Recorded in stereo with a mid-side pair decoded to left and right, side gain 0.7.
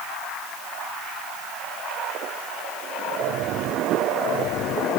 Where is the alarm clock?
I don't hear an alarm clock.